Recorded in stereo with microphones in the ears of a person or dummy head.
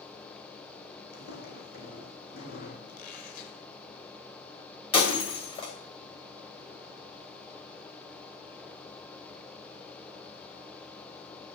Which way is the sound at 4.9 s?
25° left (ahead or behind).